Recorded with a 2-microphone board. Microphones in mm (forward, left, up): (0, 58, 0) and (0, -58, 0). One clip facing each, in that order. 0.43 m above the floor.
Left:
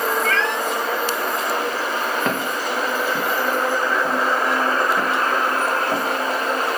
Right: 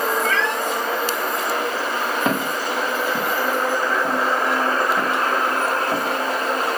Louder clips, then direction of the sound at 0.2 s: Even; 5° right (ahead or behind).